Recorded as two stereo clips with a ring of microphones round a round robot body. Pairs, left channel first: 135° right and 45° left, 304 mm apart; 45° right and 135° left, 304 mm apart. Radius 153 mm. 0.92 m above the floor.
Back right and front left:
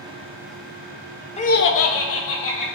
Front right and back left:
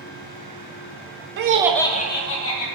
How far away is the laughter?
About 0.8 m.